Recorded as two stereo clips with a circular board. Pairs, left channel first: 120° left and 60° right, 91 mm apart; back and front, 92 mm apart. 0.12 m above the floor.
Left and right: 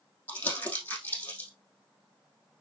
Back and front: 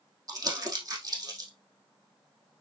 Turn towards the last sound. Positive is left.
turn(degrees=50)